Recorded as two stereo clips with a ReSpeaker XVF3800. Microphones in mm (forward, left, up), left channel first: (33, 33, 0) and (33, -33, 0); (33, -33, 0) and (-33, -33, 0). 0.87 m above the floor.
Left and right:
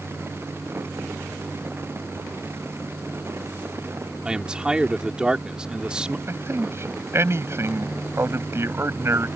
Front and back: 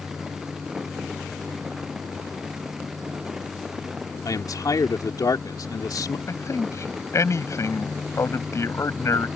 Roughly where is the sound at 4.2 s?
Ahead.